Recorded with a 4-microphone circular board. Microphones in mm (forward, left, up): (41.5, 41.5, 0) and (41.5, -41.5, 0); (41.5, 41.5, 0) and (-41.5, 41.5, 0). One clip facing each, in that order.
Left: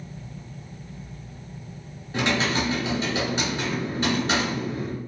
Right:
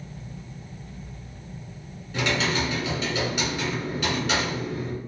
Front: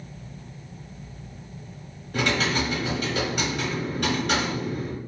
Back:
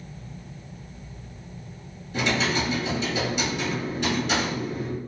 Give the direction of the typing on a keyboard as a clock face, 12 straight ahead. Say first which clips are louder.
Left 1 dB, even; 11 o'clock.